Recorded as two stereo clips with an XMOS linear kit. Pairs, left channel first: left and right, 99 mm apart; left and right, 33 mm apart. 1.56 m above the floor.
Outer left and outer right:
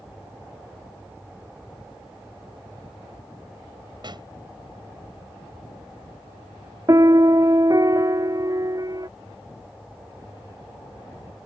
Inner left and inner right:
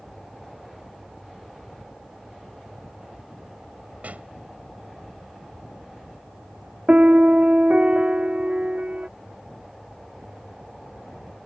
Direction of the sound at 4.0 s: 50° right (ahead or behind).